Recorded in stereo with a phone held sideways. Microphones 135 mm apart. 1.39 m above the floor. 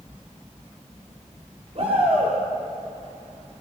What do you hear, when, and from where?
1.8 s a shout: 50° right (ahead or behind), 3.5 m